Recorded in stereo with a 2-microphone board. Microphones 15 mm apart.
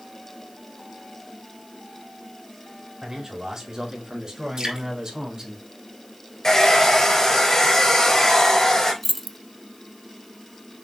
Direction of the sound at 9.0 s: 5° left (ahead or behind).